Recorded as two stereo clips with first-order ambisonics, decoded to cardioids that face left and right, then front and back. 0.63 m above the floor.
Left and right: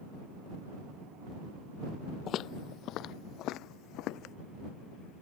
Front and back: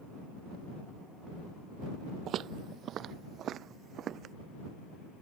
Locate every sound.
2.3 s footsteps: 135° left; by 4.3 s 125° left